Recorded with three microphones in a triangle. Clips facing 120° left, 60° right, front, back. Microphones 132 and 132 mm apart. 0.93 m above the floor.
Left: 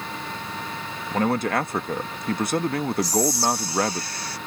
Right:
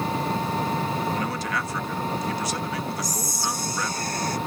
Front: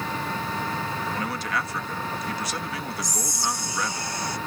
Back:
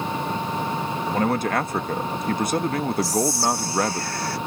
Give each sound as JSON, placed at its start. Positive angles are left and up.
{"t": 0.0, "sound": "an engine running", "azimuth_deg": -110}
{"t": 1.1, "sound": "a man speaking", "azimuth_deg": 150}
{"t": 3.0, "sound": "whispering", "azimuth_deg": -65}